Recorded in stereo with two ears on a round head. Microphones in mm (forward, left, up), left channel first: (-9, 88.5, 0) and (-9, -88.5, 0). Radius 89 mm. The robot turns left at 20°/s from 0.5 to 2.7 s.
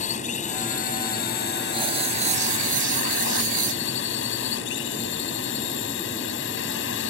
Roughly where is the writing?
Right.